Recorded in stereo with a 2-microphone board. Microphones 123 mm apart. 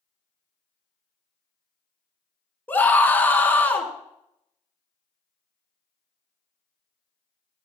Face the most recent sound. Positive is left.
turn(degrees=15)  # may be behind; listen again after turning